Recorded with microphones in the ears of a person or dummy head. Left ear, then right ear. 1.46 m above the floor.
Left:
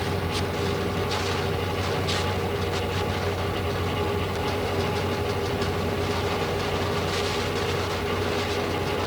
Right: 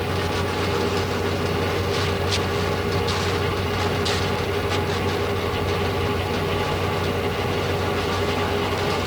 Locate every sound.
Only background noise.